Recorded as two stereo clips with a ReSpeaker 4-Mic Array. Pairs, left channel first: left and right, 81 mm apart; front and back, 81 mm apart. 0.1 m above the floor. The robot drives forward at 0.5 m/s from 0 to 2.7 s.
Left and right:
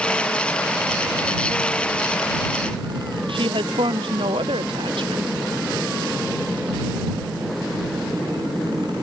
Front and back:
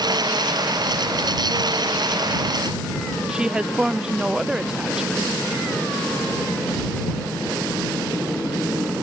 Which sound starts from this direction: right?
A woman speaking, at 3.3 s.